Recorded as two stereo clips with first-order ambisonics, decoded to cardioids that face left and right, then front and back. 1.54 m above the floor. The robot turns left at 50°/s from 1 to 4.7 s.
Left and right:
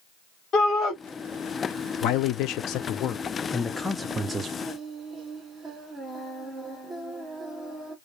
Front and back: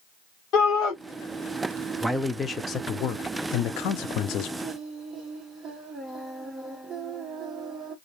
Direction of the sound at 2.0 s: 95° left.